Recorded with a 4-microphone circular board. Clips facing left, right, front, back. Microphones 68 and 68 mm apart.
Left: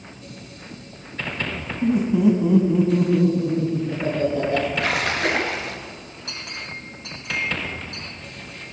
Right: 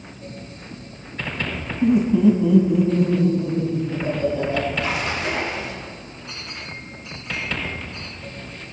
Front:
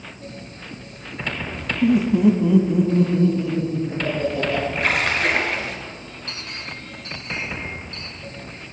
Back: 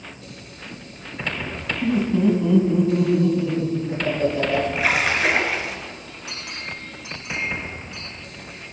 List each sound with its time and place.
1.8 s laughter: 40° right, 1.4 m; by 4.7 s 95° left, 4 m
4.8 s a splash: 95° left, 1.6 m
6.3 s a clink: 100° left, 6 m